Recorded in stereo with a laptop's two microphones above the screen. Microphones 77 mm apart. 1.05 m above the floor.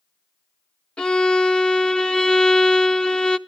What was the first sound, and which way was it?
A violin, 15° left (ahead or behind).